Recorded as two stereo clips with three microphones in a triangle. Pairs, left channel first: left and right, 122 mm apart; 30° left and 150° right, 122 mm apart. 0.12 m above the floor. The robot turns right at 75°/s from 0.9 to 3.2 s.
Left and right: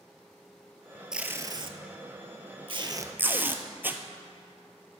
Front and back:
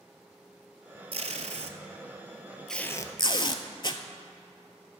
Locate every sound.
1.1 s tape being pulled: 175° right, 0.6 m; by 4.0 s 20° right, 0.6 m